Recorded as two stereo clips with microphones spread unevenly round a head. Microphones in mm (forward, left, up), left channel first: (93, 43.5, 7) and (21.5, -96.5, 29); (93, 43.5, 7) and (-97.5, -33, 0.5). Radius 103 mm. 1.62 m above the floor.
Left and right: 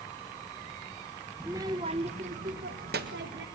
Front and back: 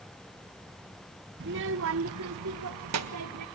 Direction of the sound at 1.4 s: 165° left.